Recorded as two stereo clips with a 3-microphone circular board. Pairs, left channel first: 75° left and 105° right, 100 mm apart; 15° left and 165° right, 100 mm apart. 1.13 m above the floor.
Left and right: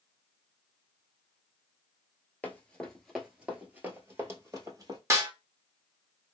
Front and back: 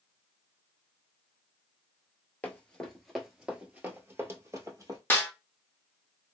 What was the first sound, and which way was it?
Running footsteps, 45° left.